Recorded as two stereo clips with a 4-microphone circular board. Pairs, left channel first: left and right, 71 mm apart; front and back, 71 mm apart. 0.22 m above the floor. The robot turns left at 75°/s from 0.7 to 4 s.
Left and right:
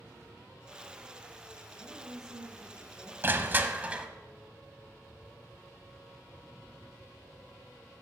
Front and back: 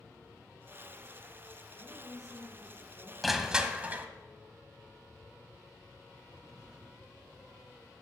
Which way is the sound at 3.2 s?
90° right.